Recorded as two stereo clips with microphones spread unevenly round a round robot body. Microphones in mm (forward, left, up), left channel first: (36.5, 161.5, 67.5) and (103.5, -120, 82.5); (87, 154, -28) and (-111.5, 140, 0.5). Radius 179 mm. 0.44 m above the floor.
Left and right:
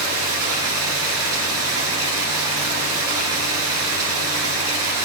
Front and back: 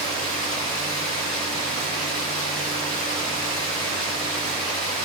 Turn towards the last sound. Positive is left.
turn(degrees=-35)